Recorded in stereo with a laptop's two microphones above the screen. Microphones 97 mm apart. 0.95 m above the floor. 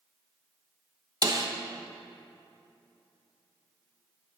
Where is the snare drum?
40° right (ahead or behind), 1.0 m.